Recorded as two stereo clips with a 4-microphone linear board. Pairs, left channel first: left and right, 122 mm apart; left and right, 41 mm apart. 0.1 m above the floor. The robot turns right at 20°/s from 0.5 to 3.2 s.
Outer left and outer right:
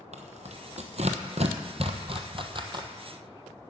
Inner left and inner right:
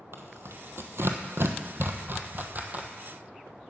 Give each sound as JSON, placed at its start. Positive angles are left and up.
{"t": 0.1, "sound": "tearing paper", "side_deg": -70, "distance_m": 1.1}